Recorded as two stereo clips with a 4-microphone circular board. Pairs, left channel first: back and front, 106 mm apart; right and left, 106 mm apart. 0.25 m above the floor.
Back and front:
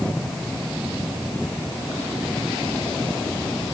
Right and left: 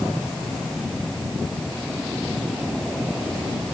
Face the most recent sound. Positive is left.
No sound to turn to.